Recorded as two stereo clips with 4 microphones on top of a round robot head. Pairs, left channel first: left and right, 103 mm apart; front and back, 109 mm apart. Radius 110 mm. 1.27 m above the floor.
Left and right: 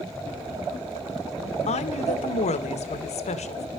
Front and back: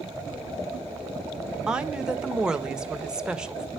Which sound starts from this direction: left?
A woman speaking, at 1.7 s.